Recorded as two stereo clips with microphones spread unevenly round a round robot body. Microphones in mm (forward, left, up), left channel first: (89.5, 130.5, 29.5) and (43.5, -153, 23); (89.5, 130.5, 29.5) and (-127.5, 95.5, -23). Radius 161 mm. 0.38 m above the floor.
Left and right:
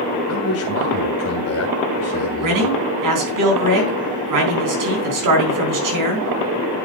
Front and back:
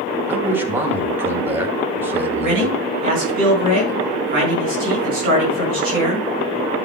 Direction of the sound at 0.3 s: 120° left.